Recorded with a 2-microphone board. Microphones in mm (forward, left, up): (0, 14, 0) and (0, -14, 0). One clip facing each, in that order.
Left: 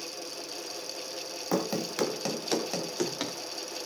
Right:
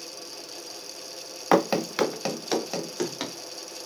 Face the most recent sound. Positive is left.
turn(degrees=-5)  # may be behind; listen again after turning